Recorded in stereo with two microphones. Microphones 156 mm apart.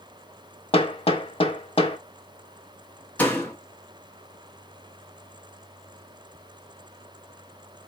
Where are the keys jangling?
No keys jangling in this recording.